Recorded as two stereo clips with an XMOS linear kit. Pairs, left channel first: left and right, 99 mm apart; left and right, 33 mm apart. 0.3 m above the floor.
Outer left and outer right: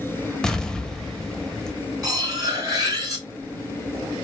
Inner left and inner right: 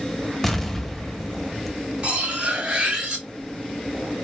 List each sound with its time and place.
0.4 s an explosion: 5° left (ahead or behind), 0.6 m
2.0 s cutlery clinking: 35° right (ahead or behind), 1.5 m